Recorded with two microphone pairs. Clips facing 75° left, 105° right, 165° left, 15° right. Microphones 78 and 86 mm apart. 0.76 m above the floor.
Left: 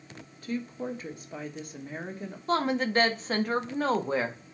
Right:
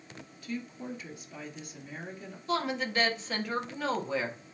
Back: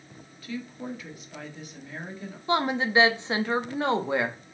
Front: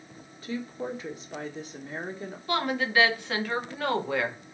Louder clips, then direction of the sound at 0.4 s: Left 5 dB, front 2 dB; 40° left.